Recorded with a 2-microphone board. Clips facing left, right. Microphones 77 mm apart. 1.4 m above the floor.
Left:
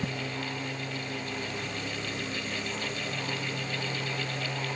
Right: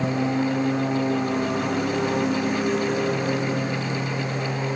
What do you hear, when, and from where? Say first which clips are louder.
0.0 s a lawn mower: right 12 dB; 60° right (ahead or behind); by 4.8 s 55° right (ahead or behind)